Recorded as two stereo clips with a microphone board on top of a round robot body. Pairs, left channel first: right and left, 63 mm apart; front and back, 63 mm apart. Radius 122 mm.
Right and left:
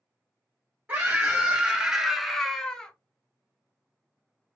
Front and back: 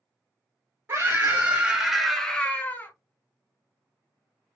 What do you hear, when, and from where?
0.9 s a scream: 145° left, 1.3 m; by 2.9 s 20° right, 1.1 m